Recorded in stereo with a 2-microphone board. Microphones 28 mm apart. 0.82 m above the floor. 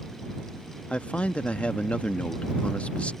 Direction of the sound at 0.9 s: 50° left (ahead or behind).